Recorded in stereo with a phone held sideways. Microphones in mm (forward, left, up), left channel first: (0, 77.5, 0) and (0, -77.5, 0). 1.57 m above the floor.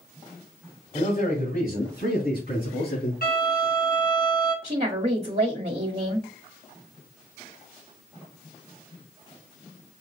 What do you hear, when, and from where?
0.9 s a man speaking: 55° left (ahead or behind), 1.6 m; by 3.1 s 75° left (ahead or behind), 4.5 m
3.2 s a violin: 75° left (ahead or behind), 3 m
4.6 s a woman speaking: 60° right (ahead or behind), 1.2 m